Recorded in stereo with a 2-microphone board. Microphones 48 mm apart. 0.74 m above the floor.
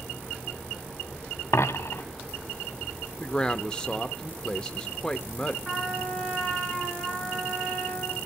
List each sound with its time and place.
1.5 s a dropped coin: 70° left (ahead or behind), 0.8 m
3.2 s a man speaking: 15° left (ahead or behind), 0.6 m
5.7 s a trumpet: 10° right (ahead or behind), 7.5 m